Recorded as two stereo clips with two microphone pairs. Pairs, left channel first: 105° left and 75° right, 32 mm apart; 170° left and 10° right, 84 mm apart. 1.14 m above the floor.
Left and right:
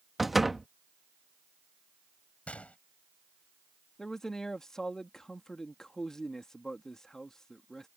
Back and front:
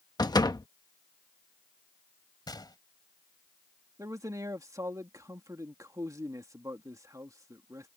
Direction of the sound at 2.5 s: 145° left.